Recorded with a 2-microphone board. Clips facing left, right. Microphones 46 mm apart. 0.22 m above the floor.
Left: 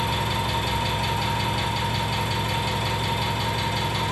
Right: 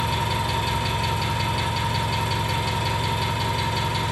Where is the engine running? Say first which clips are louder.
Right 1 dB; centre (ahead or behind), 2.5 m.